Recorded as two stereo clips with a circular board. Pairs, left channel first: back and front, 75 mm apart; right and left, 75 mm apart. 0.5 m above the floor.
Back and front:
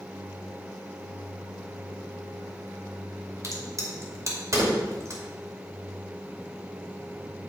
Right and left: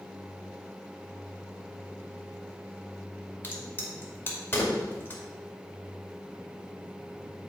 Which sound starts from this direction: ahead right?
A crack, at 3.4 s.